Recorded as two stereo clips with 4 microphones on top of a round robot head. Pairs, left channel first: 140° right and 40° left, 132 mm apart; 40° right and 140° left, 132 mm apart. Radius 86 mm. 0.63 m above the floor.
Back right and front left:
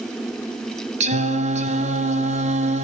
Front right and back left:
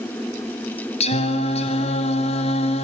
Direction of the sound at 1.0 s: 5° left.